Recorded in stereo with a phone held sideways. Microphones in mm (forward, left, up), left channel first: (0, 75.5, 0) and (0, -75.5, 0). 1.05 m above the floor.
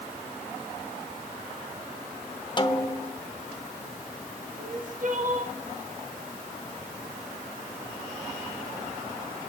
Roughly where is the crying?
Right.